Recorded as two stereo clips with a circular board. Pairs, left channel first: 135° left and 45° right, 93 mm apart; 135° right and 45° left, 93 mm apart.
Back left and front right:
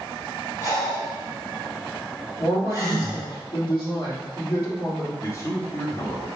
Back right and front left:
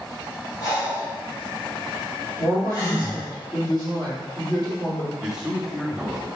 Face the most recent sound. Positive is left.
turn(degrees=120)